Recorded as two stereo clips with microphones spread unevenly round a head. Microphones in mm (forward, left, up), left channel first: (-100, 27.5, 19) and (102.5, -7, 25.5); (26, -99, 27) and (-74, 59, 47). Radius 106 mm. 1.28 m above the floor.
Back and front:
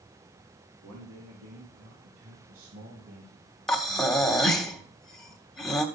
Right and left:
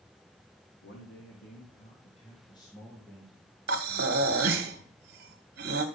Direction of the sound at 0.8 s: 30° right.